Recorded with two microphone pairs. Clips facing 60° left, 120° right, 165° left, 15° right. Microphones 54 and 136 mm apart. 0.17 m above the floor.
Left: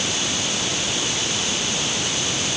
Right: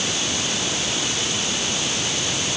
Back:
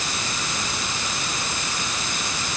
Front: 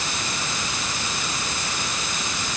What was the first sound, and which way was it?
Only background noise.